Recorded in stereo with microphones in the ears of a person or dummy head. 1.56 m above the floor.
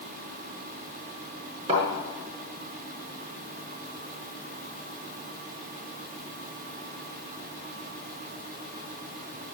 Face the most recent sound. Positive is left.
turn(degrees=-30)  # may be behind; listen again after turning